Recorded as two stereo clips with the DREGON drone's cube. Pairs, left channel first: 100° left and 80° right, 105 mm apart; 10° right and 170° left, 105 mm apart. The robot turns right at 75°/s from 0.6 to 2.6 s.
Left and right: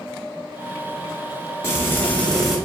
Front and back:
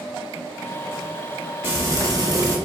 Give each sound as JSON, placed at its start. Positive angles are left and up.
{"t": 1.6, "sound": "frying", "azimuth_deg": 125, "distance_m": 1.1}